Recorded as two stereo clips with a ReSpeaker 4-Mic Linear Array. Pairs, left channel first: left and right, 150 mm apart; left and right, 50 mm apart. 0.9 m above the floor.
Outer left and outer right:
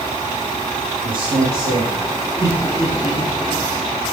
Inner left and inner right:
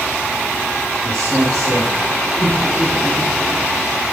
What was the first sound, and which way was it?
A man speaking, 75° right (ahead or behind).